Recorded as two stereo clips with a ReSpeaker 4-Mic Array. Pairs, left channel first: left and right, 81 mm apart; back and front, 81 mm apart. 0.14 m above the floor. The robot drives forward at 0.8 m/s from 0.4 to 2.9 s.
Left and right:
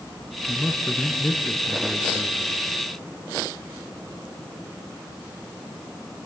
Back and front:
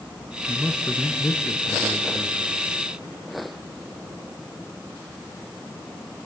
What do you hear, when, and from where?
0.5 s a man speaking: 110° left, 1.0 m; by 2.4 s 170° left, 2.0 m